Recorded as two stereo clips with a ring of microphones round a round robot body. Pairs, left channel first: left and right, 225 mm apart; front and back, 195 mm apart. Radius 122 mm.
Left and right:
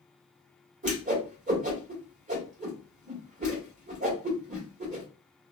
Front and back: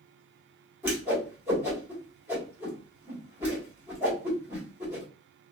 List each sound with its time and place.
0.8 s a whoosh: 110° right, 1.4 m